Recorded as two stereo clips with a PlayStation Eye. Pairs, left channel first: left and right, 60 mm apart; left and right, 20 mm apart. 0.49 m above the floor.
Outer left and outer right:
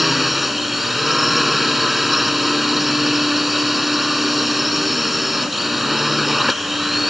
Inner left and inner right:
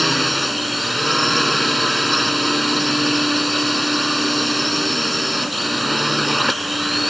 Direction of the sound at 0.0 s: Centre (ahead or behind).